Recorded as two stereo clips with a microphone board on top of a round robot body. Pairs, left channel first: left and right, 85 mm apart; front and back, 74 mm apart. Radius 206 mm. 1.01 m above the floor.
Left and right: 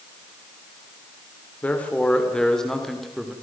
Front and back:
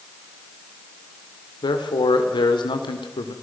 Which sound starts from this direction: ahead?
A man speaking, at 1.6 s.